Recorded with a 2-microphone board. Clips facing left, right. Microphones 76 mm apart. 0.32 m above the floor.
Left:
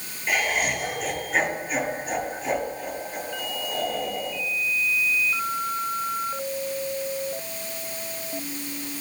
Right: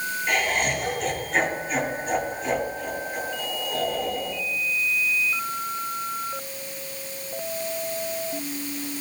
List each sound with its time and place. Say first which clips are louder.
0.3 s laughter: left 1 dB; centre (ahead or behind), 6.5 m